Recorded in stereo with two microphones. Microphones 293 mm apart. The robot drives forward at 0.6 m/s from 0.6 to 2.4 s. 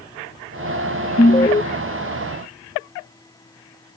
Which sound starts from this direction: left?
An alarm, at 1.2 s.